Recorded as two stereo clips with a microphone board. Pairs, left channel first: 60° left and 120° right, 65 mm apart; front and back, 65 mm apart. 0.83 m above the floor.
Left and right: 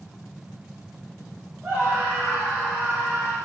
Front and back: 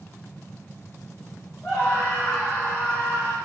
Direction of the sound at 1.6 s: 45° right.